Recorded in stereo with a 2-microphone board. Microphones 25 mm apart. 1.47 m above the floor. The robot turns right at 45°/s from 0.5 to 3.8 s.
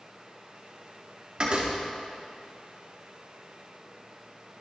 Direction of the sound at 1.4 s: 40° right (ahead or behind).